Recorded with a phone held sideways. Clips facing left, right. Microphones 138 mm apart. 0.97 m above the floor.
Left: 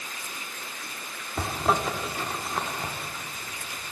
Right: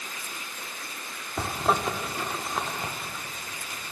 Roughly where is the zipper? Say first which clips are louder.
Even; centre.